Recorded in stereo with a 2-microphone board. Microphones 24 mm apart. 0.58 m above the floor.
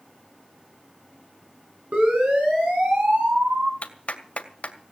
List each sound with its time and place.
1.9 s a siren: 65° right (ahead or behind), 9 m; by 3.7 s 60° right (ahead or behind), 7.5 m
3.8 s a clap: 65° left (ahead or behind), 2 m